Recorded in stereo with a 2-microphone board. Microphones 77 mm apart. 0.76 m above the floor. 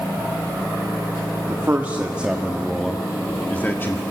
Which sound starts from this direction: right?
A man speaking, at 1.5 s.